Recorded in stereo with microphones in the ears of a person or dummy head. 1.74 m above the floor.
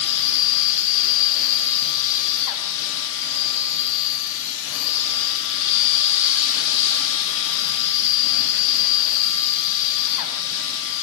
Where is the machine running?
60° left (ahead or behind), 0.7 m.